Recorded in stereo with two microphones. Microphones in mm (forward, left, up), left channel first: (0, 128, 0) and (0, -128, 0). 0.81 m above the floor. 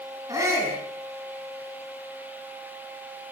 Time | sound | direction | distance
0.3 | a shout | 15° right (ahead or behind) | 9 m